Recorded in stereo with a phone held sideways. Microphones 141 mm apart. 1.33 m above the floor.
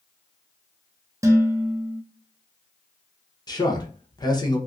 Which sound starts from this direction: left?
A man speaking, at 3.5 s.